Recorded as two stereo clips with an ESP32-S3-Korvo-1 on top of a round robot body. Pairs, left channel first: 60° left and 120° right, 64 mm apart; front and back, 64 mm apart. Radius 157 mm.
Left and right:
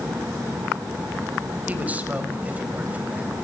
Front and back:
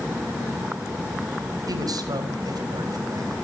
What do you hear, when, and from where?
1.7 s a man speaking: 175° left, 3.5 m